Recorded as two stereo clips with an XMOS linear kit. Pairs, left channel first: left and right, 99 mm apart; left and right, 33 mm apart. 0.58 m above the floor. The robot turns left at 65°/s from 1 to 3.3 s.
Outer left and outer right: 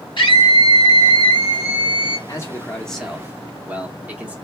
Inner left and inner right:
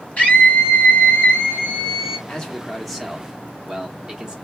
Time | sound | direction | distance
0.2 | a scream | 90° left | 1.8 m
2.3 | a man speaking | 45° left | 1.0 m